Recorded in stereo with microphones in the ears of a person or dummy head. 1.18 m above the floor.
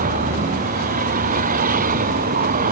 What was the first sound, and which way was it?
A vehicle, 40° right (ahead or behind).